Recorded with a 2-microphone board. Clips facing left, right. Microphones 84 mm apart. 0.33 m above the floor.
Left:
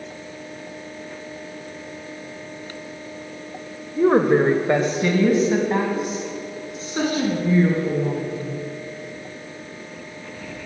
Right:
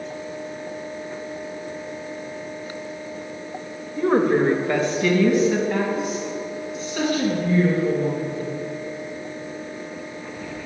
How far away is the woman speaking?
About 0.9 m.